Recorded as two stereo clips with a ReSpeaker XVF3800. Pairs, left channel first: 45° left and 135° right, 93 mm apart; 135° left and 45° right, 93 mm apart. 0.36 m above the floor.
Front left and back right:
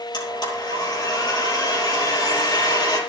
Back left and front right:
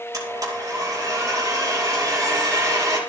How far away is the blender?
About 7.5 m.